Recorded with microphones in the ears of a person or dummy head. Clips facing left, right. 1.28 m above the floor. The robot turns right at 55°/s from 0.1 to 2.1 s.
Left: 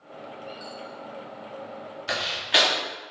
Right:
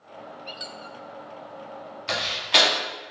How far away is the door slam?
About 1.6 m.